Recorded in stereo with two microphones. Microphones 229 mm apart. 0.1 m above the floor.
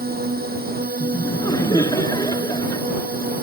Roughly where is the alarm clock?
No alarm clock in this recording.